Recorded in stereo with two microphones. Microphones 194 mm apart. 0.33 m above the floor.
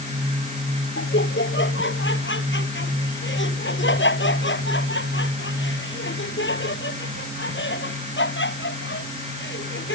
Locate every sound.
1.0 s laughter: 75° left (ahead or behind)